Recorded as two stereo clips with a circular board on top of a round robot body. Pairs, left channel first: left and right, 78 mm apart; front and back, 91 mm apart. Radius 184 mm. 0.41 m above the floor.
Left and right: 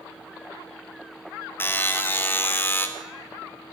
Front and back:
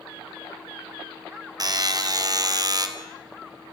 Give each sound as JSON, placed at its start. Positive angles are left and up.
{"t": 1.6, "sound": "a buzzer", "azimuth_deg": 145, "distance_m": 2.5}